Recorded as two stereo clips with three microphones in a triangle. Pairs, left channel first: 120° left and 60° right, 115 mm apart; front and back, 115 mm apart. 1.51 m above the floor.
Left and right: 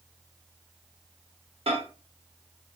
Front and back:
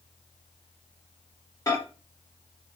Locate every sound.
1.7 s a microwave: 55° right, 1.0 m